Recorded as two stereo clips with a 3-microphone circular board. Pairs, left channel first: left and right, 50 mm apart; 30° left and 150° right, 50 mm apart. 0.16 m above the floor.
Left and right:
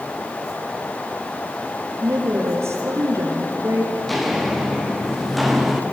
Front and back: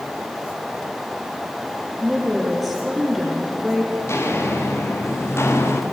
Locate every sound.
2.0 s a woman speaking: 60° right, 5.5 m
4.0 s footsteps: straight ahead, 5 m